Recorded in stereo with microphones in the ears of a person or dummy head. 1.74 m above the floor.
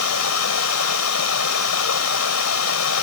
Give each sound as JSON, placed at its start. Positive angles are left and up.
{"t": 0.0, "sound": "running water", "side_deg": 80}